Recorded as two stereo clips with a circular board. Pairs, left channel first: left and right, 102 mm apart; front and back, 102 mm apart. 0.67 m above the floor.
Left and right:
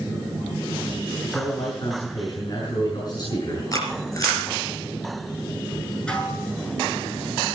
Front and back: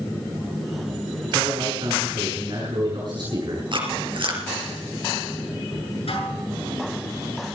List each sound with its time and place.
1.3 s a man speaking: 135° left, 6.5 m
3.7 s chewing: 145° left, 3.5 m
6.1 s dishes clattering: 10° left, 6.5 m